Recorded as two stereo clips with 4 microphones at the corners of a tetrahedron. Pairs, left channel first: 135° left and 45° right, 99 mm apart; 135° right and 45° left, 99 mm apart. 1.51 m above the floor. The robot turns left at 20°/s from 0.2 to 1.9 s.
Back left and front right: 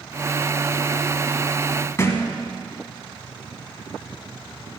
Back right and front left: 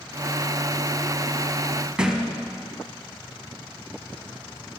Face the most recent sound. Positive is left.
turn(degrees=120)